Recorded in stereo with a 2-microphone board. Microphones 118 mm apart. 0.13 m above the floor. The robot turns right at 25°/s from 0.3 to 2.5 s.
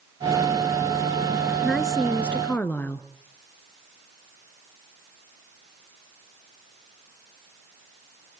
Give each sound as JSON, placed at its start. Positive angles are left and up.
{"t": 1.6, "sound": "a woman speaking", "side_deg": 0, "distance_m": 1.4}